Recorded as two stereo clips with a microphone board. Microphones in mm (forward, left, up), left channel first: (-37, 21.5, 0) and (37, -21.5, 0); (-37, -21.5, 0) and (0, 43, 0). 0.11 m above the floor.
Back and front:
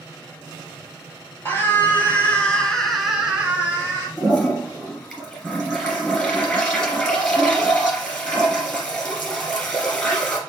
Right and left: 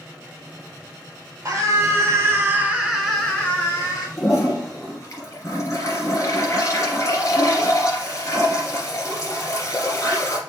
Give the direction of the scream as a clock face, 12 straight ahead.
9 o'clock.